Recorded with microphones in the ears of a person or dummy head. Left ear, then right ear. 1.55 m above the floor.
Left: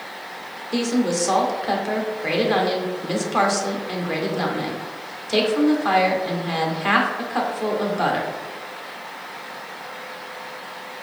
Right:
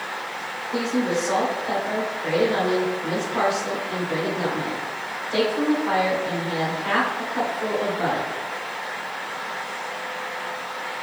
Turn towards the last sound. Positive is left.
turn(degrees=80)